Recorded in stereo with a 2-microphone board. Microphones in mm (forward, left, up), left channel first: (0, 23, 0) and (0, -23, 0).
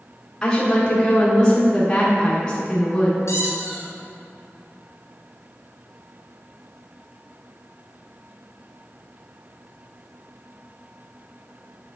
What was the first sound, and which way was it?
A woman speaking, 15° left (ahead or behind).